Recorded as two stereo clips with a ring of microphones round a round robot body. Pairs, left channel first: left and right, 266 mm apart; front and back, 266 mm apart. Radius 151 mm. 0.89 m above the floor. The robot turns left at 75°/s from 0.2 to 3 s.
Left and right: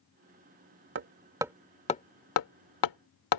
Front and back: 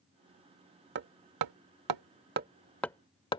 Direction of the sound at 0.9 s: 135° right.